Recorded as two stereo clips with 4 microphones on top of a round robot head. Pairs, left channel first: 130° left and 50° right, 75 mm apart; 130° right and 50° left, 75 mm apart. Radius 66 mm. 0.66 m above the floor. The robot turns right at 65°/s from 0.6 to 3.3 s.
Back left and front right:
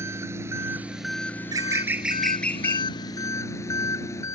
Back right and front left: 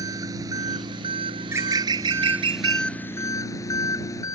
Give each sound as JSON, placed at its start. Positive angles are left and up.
{"t": 0.0, "sound": "an engine running", "azimuth_deg": 5}
{"t": 1.4, "sound": "a bird", "azimuth_deg": -15}